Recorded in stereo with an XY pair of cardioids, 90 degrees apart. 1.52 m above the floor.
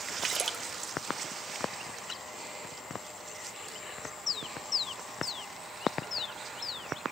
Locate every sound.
0.2 s a splash: 45° right, 2 m